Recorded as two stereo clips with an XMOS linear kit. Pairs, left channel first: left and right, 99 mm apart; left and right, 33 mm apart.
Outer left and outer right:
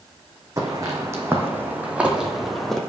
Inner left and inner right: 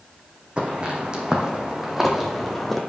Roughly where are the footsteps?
Right.